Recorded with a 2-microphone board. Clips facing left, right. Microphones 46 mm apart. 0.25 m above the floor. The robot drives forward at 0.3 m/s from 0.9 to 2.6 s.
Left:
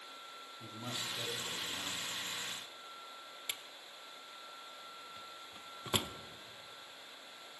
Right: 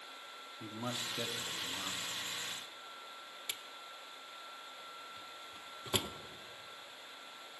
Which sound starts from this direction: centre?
A drawer, at 3.5 s.